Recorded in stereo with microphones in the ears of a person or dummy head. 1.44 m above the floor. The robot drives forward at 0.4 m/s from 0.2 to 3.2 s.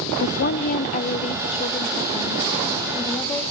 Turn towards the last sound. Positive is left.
turn(degrees=20)  # may be behind; listen again after turning